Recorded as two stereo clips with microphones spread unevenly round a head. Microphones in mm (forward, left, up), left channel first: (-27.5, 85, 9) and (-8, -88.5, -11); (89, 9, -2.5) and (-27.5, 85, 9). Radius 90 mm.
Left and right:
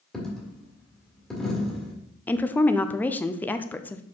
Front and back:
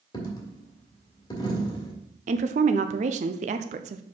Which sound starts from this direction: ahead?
A dropped coin, at 0.1 s.